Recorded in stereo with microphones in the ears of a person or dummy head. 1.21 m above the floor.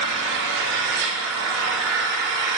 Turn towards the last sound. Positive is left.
turn(degrees=-70)  # may be behind; listen again after turning